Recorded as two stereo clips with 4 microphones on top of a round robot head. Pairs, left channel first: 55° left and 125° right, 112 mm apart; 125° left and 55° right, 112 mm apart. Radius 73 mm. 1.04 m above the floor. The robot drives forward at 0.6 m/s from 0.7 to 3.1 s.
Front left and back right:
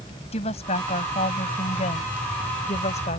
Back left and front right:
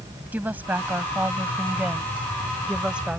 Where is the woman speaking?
20° left; by 3.2 s 25° left.